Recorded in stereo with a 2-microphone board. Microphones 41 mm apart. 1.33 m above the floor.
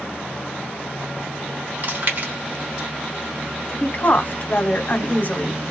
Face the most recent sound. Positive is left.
turn(degrees=40)  # may be behind; listen again after turning